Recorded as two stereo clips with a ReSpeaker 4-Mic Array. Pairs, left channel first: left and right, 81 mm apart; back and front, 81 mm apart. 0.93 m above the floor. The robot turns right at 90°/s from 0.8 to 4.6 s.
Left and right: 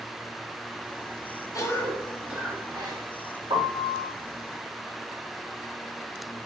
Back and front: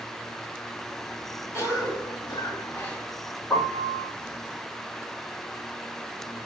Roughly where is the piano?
Right.